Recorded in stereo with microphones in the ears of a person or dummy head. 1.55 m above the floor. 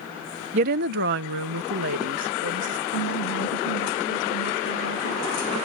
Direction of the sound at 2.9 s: 70° left (ahead or behind).